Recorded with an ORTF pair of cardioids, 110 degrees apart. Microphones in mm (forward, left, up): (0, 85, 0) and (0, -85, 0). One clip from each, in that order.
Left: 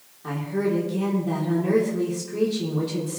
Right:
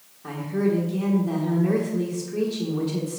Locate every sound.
0.2 s a woman speaking: 5° left, 3 m